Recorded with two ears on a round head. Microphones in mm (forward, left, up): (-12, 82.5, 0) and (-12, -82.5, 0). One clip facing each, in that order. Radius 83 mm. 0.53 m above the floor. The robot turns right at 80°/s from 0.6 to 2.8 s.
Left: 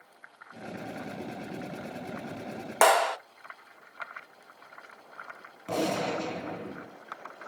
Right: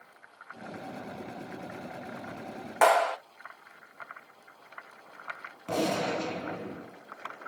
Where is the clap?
55° left (ahead or behind), 1.2 m.